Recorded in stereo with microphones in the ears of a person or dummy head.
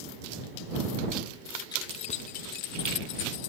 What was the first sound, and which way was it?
Keys jangling, 20° left (ahead or behind).